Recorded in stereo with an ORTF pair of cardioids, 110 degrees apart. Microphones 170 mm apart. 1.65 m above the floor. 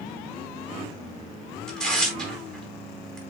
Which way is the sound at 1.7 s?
5° left.